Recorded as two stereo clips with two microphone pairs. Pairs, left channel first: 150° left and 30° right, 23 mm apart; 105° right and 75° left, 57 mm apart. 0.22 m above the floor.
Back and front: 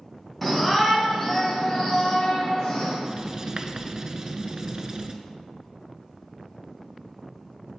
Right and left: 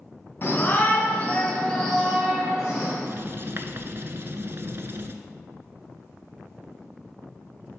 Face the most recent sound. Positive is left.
turn(degrees=35)